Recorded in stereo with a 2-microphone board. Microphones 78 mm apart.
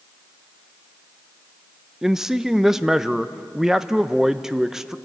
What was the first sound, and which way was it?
A man speaking, 5° right (ahead or behind).